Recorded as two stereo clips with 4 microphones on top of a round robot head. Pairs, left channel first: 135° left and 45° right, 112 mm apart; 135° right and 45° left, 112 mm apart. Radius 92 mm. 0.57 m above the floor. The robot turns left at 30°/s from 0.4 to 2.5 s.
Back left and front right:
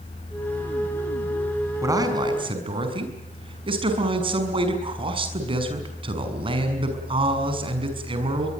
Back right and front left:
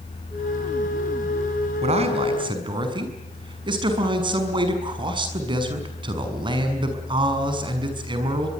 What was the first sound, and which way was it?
A man speaking, 20° left.